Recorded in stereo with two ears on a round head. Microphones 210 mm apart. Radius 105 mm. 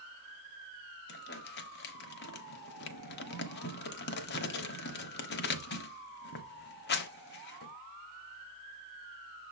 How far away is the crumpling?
About 1.1 m.